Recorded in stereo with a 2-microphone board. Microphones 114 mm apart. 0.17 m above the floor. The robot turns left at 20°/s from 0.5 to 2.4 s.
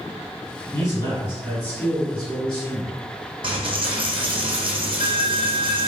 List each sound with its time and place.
0.7 s a man speaking: 50° left, 1.9 m; by 2.9 s 15° left, 1.9 m
3.4 s a dropped coin: 50° right (ahead or behind), 0.7 m